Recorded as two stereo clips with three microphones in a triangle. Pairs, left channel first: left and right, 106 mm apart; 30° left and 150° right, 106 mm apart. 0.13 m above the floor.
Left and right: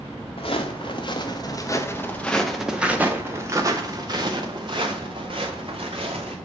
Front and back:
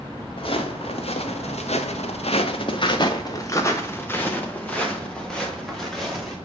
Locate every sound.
0.4 s footsteps: 65° left, 1.5 m; by 6.4 s 60° right, 2.5 m